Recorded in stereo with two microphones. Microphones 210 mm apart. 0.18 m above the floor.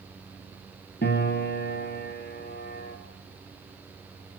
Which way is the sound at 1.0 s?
55° left (ahead or behind).